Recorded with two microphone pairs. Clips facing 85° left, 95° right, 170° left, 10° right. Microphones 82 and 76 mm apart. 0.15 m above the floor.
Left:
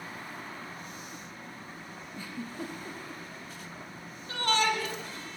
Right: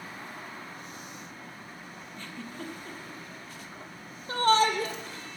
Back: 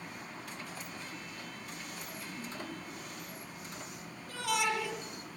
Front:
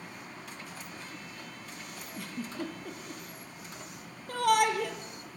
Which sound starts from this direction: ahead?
A giggle, at 2.1 s.